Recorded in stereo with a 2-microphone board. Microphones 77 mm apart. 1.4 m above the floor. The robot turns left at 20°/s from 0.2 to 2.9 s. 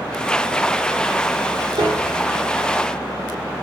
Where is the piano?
80° right, 3 m.